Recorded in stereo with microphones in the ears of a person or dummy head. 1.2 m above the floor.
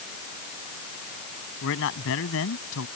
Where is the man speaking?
75° left (ahead or behind); by 2.9 s 80° left.